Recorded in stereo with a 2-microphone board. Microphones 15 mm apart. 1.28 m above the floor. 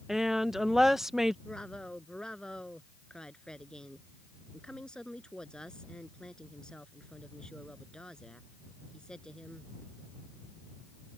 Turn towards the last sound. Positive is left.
turn(degrees=75)  # may be behind; listen again after turning